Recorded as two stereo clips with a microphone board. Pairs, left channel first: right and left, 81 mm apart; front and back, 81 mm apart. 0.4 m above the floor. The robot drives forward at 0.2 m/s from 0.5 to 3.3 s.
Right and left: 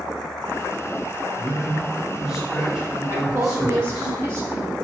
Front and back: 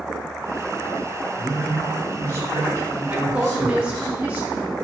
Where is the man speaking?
170° left, 1.7 m.